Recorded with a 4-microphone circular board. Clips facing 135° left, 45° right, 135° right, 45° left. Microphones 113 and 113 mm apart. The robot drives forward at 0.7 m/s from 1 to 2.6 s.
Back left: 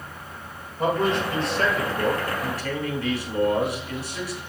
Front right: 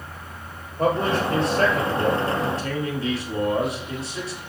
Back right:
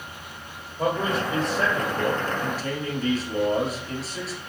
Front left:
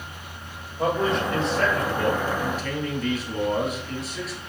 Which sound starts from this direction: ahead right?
A man speaking, at 0.8 s.